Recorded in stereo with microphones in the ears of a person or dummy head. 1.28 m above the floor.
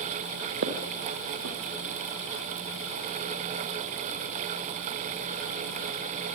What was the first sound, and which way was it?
Footsteps, 50° right (ahead or behind).